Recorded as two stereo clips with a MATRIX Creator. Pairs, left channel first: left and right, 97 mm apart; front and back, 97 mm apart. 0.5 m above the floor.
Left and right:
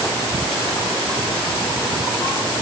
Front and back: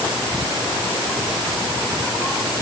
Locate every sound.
Only background noise.